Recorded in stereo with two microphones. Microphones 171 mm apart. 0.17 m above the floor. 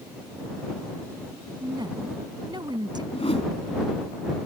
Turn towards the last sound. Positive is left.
turn(degrees=35)  # may be behind; listen again after turning